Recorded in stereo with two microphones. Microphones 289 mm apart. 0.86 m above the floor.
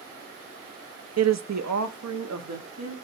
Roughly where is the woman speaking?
Right.